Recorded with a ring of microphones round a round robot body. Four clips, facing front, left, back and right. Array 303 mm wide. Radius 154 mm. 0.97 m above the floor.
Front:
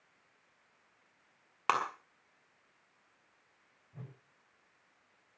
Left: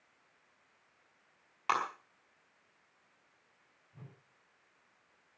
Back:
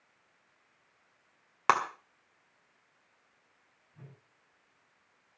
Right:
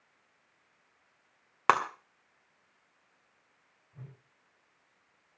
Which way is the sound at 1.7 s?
110° right.